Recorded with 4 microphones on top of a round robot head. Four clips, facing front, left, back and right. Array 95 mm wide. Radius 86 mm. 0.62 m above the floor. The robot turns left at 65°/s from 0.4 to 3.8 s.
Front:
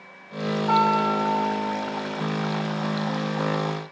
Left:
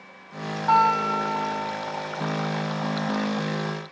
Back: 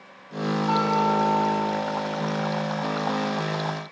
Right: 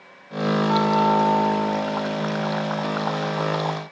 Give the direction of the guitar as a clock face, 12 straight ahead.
9 o'clock.